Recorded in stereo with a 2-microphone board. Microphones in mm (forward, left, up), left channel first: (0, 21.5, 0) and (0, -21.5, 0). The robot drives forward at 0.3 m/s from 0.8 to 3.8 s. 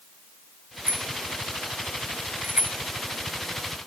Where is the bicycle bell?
40° right (ahead or behind); by 2.8 s 35° right (ahead or behind).